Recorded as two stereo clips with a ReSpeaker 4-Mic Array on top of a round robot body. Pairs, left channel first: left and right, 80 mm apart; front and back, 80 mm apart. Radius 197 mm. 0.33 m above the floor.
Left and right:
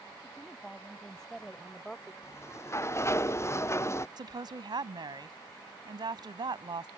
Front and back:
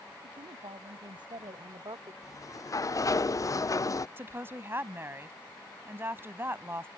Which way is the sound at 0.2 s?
175° left.